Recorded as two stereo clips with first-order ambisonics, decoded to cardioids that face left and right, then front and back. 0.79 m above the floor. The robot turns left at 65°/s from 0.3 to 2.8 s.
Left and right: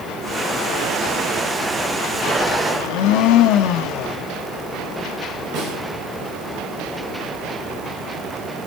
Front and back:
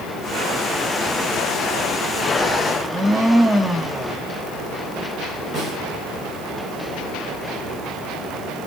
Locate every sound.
2.7 s a blender: 95° left, 0.9 m
5.5 s a snare drum: 120° right, 5 m